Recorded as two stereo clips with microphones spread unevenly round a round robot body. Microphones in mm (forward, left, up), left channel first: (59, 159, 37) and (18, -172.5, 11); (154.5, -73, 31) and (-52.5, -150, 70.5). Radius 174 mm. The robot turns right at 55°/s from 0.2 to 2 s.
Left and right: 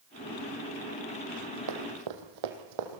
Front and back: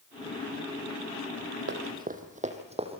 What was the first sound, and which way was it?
Running footsteps, 140° right.